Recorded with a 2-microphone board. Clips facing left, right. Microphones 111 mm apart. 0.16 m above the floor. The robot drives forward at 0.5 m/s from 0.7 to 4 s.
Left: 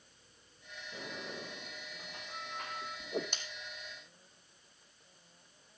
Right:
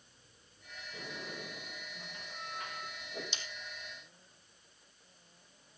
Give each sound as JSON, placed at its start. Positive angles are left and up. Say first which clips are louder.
{"t": 0.9, "sound": "a sliding door", "louder": "left 1 dB", "side_deg": 80, "distance_m": 8.0}
{"t": 3.0, "sound": "a whoosh", "louder": "left 9 dB", "side_deg": 60, "distance_m": 1.9}